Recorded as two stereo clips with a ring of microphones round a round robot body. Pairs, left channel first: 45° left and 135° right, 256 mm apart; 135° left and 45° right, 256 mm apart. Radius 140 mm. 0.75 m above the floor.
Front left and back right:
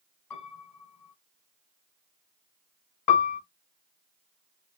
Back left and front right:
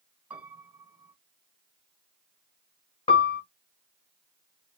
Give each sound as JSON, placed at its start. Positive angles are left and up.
{"t": 0.3, "sound": "a piano", "azimuth_deg": 40, "distance_m": 2.5}
{"t": 3.1, "sound": "a piano", "azimuth_deg": 65, "distance_m": 0.8}